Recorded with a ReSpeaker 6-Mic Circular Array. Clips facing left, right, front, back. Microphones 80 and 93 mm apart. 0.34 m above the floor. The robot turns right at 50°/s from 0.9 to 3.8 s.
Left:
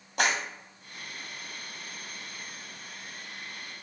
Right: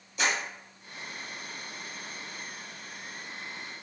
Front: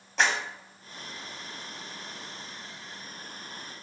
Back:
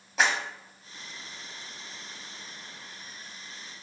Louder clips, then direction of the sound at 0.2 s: Left 2 dB, even; 95° left.